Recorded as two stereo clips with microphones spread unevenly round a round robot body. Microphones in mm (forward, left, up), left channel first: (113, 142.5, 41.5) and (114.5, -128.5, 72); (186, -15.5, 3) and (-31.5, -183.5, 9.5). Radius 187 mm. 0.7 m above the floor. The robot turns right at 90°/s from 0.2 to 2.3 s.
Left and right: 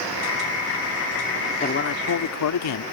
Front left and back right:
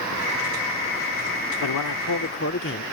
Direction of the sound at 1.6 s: 35° left.